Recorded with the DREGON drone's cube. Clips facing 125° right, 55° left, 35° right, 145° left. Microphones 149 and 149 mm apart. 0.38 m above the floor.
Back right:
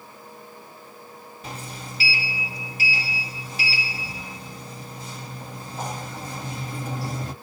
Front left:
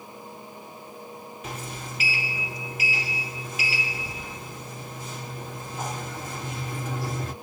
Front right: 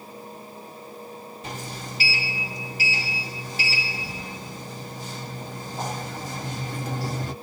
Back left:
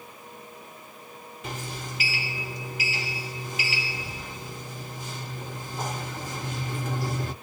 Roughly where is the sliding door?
Right.